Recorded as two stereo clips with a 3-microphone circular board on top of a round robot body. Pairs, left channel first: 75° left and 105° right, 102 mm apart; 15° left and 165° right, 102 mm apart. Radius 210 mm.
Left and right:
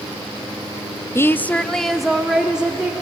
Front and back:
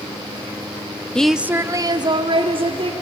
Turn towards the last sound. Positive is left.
turn(degrees=175)